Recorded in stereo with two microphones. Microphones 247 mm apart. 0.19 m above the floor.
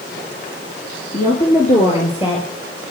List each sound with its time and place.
1.1 s a woman speaking: 35° left (ahead or behind), 3 m; by 2.5 s 20° left (ahead or behind), 4 m